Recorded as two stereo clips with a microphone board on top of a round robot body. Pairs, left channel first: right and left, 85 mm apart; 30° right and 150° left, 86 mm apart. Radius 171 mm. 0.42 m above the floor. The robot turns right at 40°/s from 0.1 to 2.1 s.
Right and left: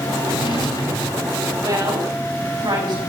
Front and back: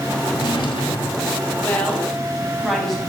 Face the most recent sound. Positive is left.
turn(degrees=55)